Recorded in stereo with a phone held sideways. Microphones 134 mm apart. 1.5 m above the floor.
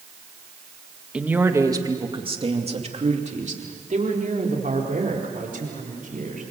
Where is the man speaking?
10° right (ahead or behind), 2 m; by 6.4 s 80° right, 6.5 m.